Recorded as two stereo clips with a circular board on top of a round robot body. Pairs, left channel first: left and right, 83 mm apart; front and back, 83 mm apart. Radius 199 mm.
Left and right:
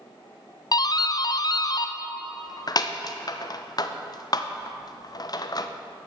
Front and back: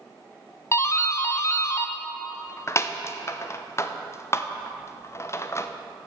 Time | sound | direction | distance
0.7 | a doorbell | 55° left | 1.0 m